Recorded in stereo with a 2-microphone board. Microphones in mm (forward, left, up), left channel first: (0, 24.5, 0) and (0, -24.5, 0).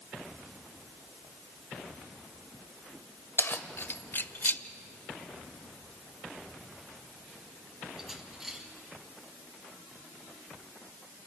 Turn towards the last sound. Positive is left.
turn(degrees=-10)  # may be behind; listen again after turning